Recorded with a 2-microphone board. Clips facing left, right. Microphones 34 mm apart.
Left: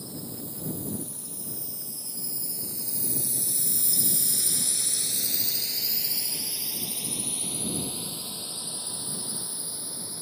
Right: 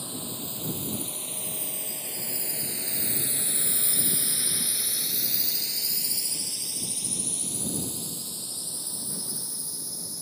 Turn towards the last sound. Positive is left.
turn(degrees=30)  # may be behind; listen again after turning